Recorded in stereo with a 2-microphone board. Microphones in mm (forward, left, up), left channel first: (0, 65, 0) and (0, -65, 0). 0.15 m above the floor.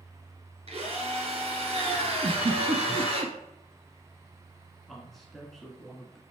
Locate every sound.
0.7 s a drill: 50° right (ahead or behind), 2.5 m
2.2 s a giggle: 45° right (ahead or behind), 0.8 m
4.9 s a man speaking: centre (ahead or behind), 1.7 m